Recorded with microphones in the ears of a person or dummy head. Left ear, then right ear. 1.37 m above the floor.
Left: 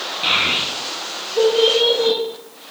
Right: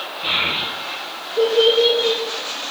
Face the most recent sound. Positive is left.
turn(degrees=30)  # may be behind; listen again after turning